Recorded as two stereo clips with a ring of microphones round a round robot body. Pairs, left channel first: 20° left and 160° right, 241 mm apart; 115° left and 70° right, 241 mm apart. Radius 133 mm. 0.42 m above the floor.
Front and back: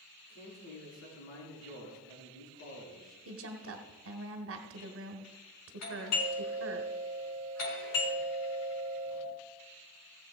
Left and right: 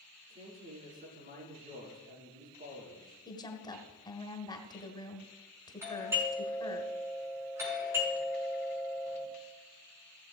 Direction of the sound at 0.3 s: 10° right.